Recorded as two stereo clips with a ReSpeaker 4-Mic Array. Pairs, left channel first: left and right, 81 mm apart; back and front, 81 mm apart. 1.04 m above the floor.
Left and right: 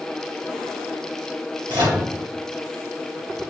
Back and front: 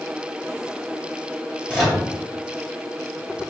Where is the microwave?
80° right, 1.6 m.